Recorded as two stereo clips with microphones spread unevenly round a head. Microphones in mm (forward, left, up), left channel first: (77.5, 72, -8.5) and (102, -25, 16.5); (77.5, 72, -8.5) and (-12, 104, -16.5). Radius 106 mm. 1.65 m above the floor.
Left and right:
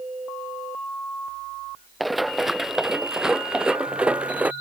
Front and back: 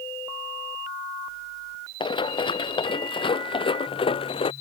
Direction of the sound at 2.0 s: 10° left.